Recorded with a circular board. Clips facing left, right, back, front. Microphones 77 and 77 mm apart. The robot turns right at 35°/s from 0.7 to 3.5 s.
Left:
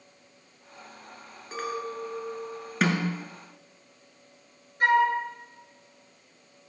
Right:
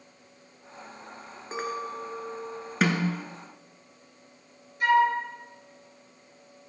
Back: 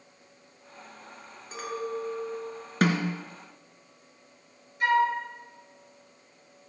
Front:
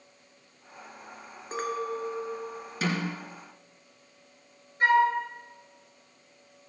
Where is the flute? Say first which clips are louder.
Even, front 2 dB; 50° left, 2 m.